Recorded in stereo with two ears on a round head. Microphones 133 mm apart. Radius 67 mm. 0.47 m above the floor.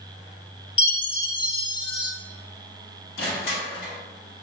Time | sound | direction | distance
0.8 | a chime | 30° left (ahead or behind) | 0.6 m
3.2 | crushing | 70° left (ahead or behind) | 1.7 m